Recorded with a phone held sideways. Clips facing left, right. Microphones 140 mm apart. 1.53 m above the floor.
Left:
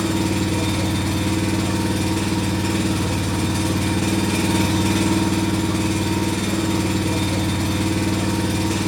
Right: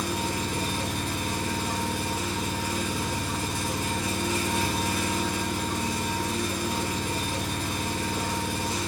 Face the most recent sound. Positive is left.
turn(degrees=80)